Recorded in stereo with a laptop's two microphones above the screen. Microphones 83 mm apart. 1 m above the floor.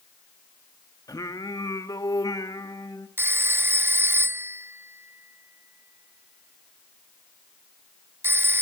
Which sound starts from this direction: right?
A phone ringing, at 3.2 s.